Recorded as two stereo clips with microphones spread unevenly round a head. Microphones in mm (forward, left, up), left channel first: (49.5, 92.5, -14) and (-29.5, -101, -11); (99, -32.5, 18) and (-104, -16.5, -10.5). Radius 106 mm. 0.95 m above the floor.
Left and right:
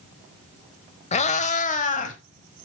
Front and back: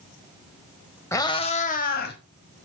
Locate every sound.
1.1 s a cat meowing: 45° left, 0.8 m; by 2.2 s 20° left, 1.3 m